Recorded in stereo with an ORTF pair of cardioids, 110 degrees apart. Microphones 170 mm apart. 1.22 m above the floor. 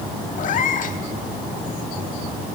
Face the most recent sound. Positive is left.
turn(degrees=50)